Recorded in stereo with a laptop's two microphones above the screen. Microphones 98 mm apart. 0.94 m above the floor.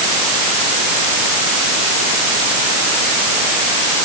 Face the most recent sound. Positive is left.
No sound to turn to.